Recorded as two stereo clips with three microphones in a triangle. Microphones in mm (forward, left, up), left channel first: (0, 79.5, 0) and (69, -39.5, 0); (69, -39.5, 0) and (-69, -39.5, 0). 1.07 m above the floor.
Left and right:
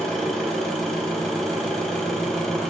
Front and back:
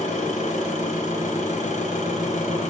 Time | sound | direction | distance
0.0 | an engine running | 35° left | 5.5 m